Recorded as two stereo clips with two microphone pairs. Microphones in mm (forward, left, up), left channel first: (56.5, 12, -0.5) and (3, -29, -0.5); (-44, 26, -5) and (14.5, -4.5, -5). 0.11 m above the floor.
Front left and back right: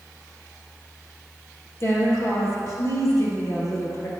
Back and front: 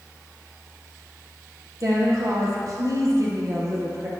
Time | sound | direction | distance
1.8 | a woman speaking | 5° right | 3 m